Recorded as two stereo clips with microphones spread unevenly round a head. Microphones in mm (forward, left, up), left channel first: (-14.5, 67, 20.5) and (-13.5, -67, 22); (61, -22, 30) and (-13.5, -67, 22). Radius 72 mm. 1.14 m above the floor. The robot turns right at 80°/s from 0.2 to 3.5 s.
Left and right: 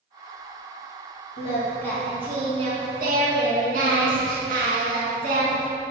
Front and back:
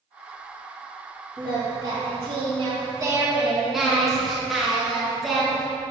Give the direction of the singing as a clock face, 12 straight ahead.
8 o'clock.